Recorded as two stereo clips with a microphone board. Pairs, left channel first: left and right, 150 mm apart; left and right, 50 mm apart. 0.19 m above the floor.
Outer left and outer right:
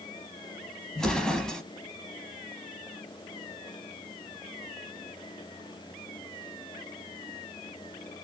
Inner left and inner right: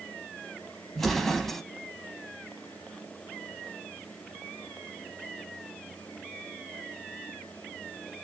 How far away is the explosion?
About 0.8 m.